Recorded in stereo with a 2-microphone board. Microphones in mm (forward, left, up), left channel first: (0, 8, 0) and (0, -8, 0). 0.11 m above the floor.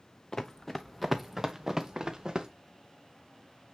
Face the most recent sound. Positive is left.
turn(degrees=-35)  # may be behind; listen again after turning